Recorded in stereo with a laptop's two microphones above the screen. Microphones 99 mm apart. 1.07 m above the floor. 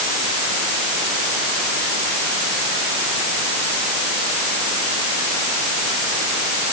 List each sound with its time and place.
Only background noise.